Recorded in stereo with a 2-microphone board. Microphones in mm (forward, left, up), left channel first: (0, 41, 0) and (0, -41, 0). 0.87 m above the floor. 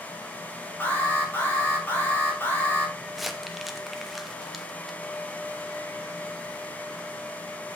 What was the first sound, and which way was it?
An alarm, 25° left (ahead or behind).